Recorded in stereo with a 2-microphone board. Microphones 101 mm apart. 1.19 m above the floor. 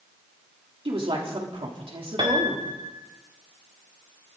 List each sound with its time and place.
0.8 s a woman speaking: 65° right (ahead or behind), 3 m
2.2 s a piano: 60° right (ahead or behind), 2.0 m